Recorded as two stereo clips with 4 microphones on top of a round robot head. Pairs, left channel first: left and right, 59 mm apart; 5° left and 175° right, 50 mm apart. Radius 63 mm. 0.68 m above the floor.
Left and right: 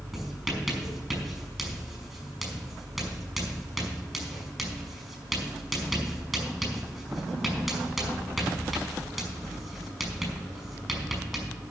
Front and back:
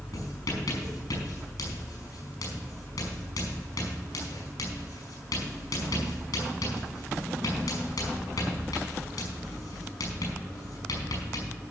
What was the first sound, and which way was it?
Writing, 5° right.